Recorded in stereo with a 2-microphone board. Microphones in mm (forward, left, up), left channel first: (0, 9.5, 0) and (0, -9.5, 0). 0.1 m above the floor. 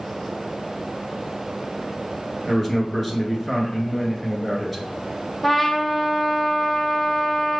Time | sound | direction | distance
2.5 | a man speaking | 5° right (ahead or behind) | 1.3 m
5.4 | a trumpet | 10° left (ahead or behind) | 0.9 m